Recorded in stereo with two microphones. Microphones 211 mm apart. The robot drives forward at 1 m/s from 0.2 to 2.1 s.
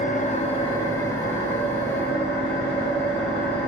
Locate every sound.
0.0 s an engine running: 35° left (ahead or behind), 0.7 m; by 3.7 s 10° left (ahead or behind), 2.5 m